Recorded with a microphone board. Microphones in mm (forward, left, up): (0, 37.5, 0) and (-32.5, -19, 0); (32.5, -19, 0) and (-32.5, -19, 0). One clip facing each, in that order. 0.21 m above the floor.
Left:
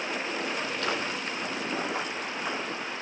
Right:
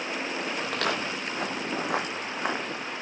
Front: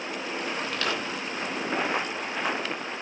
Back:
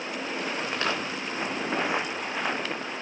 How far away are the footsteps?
About 5 m.